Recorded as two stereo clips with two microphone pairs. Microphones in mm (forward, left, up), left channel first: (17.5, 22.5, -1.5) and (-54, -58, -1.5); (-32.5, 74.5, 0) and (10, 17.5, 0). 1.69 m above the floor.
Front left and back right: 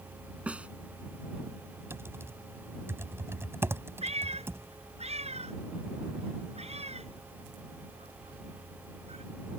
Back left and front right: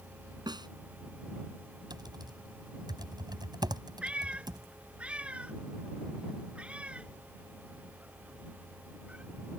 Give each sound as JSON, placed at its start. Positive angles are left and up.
{"t": 0.5, "sound": "a snare drum", "azimuth_deg": -55}
{"t": 1.9, "sound": "typing on a keyboard", "azimuth_deg": -65}
{"t": 4.0, "sound": "a cat meowing", "azimuth_deg": -125}